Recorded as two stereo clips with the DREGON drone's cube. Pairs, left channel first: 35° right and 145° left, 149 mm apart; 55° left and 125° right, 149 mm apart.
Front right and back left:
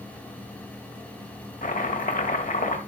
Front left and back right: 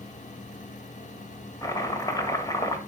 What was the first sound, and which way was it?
Chopping, 10° right.